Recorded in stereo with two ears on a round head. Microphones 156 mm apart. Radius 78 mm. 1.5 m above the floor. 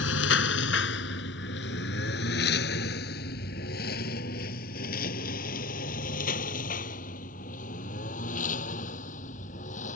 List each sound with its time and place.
0.0 s a lawn mower: 80° left; by 10.0 s 45° left (ahead or behind)